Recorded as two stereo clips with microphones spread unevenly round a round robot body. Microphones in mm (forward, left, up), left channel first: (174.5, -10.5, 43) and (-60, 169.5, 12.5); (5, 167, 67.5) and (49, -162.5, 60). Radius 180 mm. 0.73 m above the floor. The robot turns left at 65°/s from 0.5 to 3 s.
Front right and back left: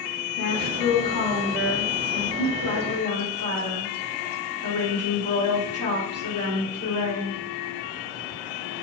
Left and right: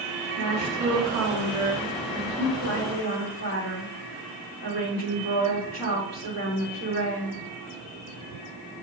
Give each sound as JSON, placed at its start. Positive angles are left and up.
{"t": 0.4, "sound": "a woman speaking", "azimuth_deg": -55, "distance_m": 1.7}